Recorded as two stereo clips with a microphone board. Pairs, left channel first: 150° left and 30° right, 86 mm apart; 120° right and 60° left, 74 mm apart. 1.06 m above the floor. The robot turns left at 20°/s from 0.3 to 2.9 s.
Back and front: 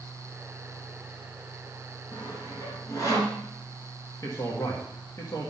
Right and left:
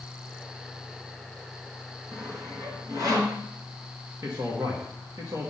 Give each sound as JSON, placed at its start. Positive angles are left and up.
{"t": 2.1, "sound": "sawing", "azimuth_deg": 115, "distance_m": 3.0}
{"t": 4.2, "sound": "a man speaking", "azimuth_deg": 100, "distance_m": 1.6}